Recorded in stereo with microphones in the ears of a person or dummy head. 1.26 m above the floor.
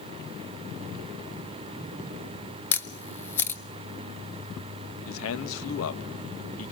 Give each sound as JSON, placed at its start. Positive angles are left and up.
{"t": 2.7, "sound": "a camera shutter", "side_deg": 15, "distance_m": 1.3}
{"t": 5.1, "sound": "a man speaking", "side_deg": 75, "distance_m": 1.7}